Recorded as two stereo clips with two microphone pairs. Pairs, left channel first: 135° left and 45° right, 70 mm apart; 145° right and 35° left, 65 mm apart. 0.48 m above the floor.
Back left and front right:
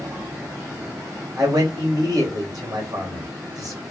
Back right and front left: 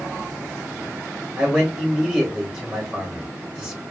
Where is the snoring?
I don't hear snoring.